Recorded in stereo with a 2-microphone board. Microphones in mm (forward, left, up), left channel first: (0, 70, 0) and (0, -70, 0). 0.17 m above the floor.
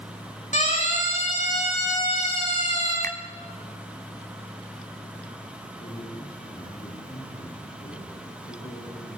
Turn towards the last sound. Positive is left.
turn(degrees=80)